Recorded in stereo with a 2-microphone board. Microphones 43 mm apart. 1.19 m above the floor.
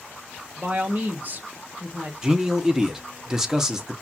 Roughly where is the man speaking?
Centre.